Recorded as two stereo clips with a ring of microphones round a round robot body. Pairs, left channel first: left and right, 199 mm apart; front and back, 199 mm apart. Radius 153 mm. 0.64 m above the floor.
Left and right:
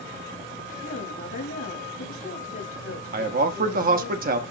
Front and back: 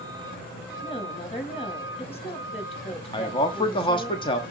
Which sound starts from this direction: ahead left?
A woman speaking, at 0.8 s.